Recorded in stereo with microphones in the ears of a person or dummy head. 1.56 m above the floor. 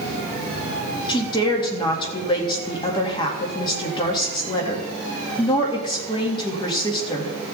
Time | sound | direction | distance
1.1 | a woman speaking | 35° left (ahead or behind) | 2.5 m